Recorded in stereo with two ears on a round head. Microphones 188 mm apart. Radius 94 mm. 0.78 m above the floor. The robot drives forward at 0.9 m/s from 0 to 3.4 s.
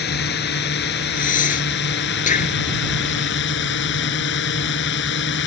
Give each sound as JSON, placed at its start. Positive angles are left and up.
{"t": 0.0, "sound": "a drone", "side_deg": 50}
{"t": 1.2, "sound": "breathing", "side_deg": 40}